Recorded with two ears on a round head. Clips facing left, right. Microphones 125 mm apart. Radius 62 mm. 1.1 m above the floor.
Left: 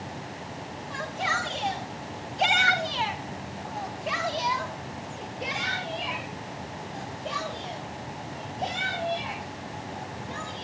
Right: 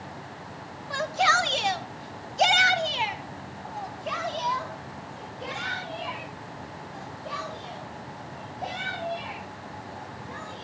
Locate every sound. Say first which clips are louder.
0.9 s a shout: right 7 dB; 75° right (ahead or behind), 2 m; by 10.6 s 30° left (ahead or behind), 9.5 m